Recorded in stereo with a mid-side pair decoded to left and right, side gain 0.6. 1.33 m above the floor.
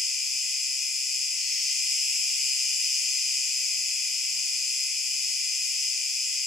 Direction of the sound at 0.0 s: 25° left.